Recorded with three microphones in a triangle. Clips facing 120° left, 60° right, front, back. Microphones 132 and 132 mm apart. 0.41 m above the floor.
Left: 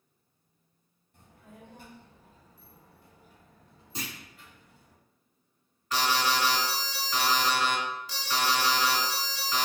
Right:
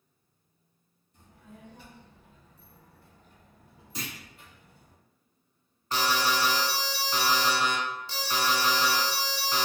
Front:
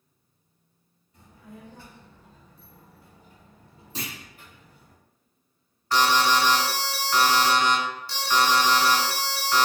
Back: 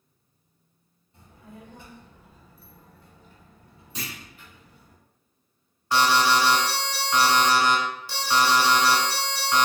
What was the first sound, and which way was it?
A child speaking, 125° left.